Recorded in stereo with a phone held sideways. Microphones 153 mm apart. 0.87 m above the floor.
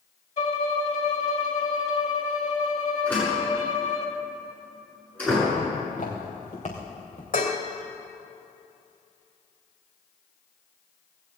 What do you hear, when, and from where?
0.4 s a violin: 50° left (ahead or behind), 1.9 m
3.1 s a door slam: 10° left (ahead or behind), 7.5 m
5.8 s footsteps: 60° left (ahead or behind), 4.5 m; by 7.2 s 45° left (ahead or behind), 3.5 m
7.3 s dishes clattering: 65° left (ahead or behind), 2.5 m